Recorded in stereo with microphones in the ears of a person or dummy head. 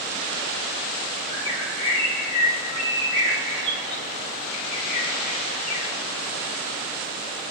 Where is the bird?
10° left (ahead or behind), 1.0 m.